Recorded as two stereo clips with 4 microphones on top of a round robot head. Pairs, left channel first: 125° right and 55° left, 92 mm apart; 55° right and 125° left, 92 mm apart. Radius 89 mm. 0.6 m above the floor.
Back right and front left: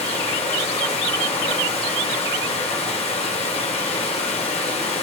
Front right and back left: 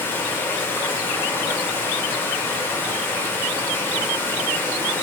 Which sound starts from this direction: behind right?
Running water, at 0.0 s.